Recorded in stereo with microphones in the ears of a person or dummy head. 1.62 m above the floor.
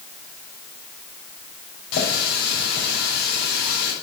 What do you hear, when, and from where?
1.9 s a running tap: 70° left (ahead or behind), 5.5 m